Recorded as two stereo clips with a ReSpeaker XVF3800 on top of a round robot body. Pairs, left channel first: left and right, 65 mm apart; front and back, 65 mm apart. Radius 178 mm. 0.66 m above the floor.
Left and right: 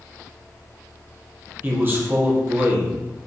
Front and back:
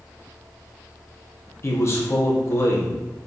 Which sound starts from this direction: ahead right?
A man speaking, at 1.6 s.